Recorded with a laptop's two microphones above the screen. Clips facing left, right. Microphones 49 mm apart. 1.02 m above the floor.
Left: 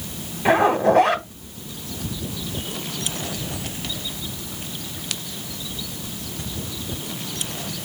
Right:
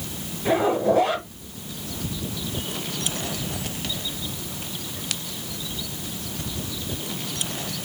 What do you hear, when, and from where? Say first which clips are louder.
0.5 s a zipper: left 4 dB; 55° left (ahead or behind), 1.1 m